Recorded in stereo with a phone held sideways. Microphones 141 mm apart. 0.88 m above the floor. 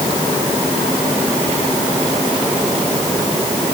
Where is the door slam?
No door slam in this recording.